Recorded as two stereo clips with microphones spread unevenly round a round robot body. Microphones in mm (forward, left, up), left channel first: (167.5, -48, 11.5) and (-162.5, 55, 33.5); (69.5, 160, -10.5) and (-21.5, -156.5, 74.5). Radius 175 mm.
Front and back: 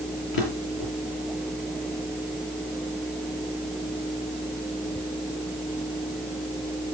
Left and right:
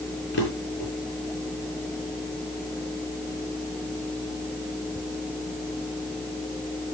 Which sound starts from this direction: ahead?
A drawer, at 0.3 s.